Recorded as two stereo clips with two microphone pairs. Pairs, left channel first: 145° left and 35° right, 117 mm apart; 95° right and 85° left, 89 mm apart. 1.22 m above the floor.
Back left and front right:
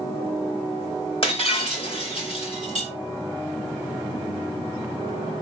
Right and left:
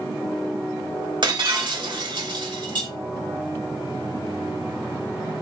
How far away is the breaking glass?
About 3 m.